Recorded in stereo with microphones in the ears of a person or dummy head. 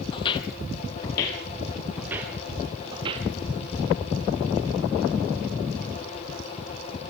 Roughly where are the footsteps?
Left.